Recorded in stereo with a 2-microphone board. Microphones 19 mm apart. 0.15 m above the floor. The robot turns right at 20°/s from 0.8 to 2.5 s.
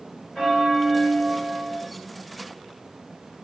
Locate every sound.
0.3 s a bell: 5° right (ahead or behind), 1.9 m; by 1.8 s 25° right (ahead or behind), 1.9 m